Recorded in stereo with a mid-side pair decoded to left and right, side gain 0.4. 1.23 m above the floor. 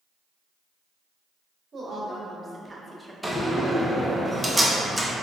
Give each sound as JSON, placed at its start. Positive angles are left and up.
{"t": 1.7, "sound": "a woman speaking", "azimuth_deg": -45, "distance_m": 1.2}
{"t": 3.2, "sound": "a door slam", "azimuth_deg": -5, "distance_m": 0.7}